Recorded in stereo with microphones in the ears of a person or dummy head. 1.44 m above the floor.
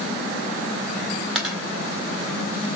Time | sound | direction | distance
1.4 | a dropped coin | centre (ahead or behind) | 1.7 m